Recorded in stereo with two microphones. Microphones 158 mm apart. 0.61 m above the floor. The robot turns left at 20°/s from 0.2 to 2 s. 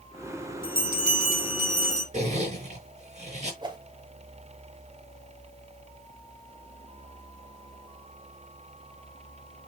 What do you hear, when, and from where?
0.6 s a bell: 85° right, 4.5 m; by 2.0 s 65° right (ahead or behind), 4.5 m
2.1 s a zipper: 45° right (ahead or behind), 5 m
3.6 s a whoosh: 30° right (ahead or behind), 1.9 m